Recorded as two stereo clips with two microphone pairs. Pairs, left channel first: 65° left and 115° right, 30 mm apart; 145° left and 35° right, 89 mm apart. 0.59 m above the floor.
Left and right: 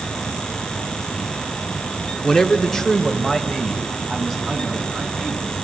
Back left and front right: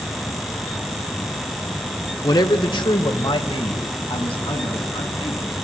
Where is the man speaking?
130° left, 1.2 m; by 5.5 s 145° left, 6 m.